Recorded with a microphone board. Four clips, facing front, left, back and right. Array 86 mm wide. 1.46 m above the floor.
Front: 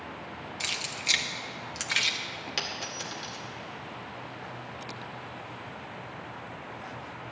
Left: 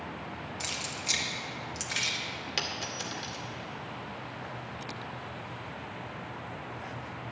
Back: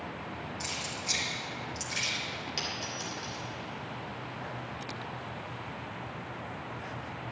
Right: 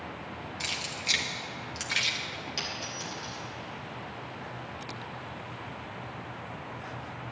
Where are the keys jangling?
20° right, 1.2 m.